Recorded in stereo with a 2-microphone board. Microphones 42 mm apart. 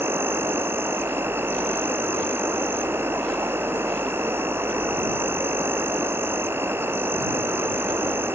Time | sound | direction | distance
0.0 | an insect | 70° right (ahead or behind) | ?